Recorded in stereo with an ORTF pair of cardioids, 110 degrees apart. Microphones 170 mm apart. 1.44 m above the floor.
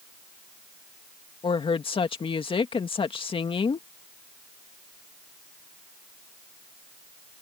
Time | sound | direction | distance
1.4 | a woman speaking | 30° left | ?